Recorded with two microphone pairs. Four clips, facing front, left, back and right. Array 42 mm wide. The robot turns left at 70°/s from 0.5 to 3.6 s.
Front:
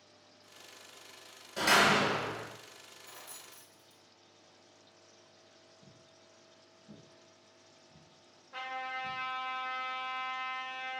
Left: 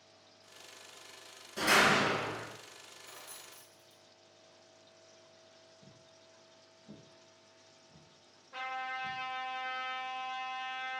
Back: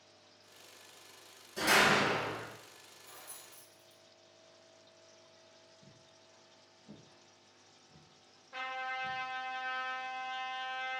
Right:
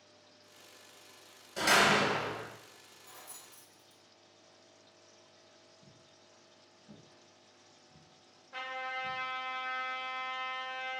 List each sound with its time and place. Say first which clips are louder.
1.6 s a door slam: even, front 1 dB; 40° right, 1.3 m; by 2.5 s 100° right, 1.3 m
3.0 s keys jangling: even, front 2 dB; 50° left, 1.1 m; by 4.0 s 10° left, 1.1 m
5.8 s footsteps: left 1 dB, front 1 dB; 80° left, 1.0 m; by 9.2 s 155° left, 3.5 m
8.5 s a trumpet: even, even; straight behind, 1.5 m